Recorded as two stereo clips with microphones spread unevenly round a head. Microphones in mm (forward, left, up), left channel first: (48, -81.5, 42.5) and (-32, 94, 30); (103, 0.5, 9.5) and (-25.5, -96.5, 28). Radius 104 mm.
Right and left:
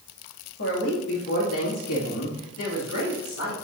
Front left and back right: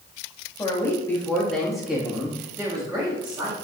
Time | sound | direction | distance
0.6 | a woman speaking | 35° right | 2.5 m